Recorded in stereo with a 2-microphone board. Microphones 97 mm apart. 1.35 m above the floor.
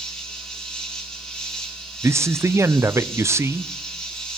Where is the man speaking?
30° right (ahead or behind), 0.5 m.